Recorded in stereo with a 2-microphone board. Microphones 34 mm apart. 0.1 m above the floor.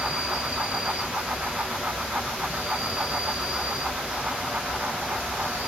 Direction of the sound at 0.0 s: 65° right (ahead or behind).